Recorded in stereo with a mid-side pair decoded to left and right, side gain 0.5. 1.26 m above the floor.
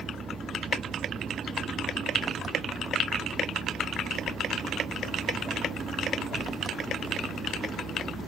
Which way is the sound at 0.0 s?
35° right.